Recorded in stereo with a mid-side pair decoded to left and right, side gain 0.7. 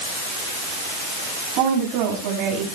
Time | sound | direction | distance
1.6 | a woman speaking | 70° right | 8 m